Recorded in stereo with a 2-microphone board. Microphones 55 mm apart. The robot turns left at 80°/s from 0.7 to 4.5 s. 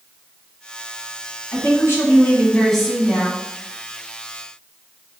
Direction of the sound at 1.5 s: 110° left.